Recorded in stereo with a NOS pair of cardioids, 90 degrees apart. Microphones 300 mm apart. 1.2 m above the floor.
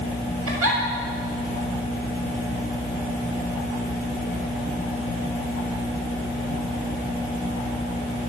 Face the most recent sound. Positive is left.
turn(degrees=-50)